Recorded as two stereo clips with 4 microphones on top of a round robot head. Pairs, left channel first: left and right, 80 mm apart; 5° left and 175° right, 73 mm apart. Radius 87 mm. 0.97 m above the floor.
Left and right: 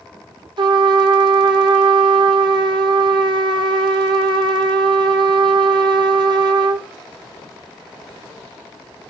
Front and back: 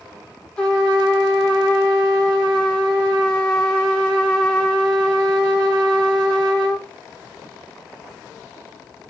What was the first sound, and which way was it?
A trumpet, 70° right.